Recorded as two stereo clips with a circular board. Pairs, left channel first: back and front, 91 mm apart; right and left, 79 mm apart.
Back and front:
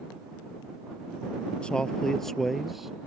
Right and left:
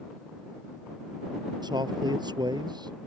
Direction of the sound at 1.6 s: 100° left.